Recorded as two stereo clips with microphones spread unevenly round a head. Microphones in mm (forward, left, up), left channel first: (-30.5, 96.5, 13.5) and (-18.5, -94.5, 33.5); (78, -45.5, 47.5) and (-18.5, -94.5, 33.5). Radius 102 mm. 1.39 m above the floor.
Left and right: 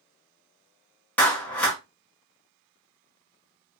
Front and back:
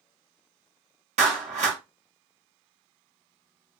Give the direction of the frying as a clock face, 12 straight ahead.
I don't hear frying.